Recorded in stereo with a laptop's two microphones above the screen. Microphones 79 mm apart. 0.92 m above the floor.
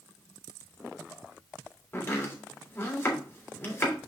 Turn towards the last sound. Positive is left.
turn(degrees=25)  # may be behind; listen again after turning